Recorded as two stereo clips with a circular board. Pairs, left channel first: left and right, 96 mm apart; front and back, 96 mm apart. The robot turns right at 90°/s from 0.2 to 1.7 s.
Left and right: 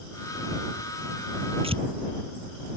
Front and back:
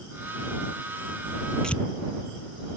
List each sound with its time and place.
1.6 s tearing paper: 85° right; by 1.8 s 80° right